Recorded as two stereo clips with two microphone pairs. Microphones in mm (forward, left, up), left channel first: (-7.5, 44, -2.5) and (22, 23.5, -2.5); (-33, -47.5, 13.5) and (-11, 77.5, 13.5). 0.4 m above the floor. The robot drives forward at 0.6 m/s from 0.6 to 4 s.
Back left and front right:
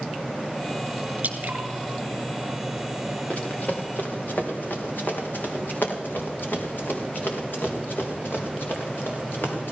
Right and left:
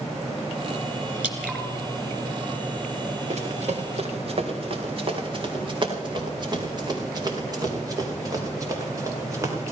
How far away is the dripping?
About 2.5 m.